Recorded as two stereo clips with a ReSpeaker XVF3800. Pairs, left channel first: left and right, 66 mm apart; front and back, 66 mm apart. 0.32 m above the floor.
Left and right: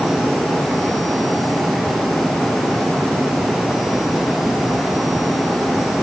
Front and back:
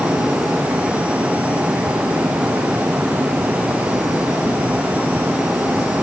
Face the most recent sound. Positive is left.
No sound to turn to.